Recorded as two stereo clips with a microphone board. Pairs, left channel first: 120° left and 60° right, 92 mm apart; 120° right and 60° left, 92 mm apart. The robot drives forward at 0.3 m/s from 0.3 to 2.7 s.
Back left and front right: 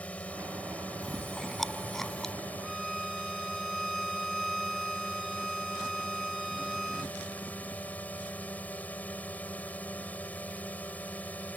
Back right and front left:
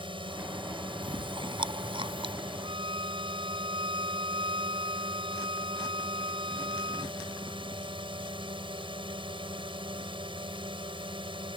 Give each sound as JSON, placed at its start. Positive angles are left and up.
{"t": 0.0, "sound": "a drone", "azimuth_deg": 45}
{"t": 1.0, "sound": "chewing", "azimuth_deg": 30}
{"t": 2.6, "sound": "a violin", "azimuth_deg": 30}